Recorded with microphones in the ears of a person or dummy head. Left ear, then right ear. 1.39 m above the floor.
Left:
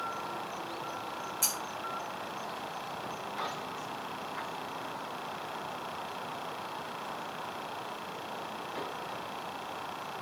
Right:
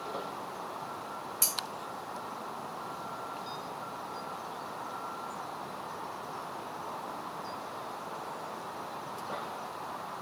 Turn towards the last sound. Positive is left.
turn(degrees=-20)  # may be behind; listen again after turning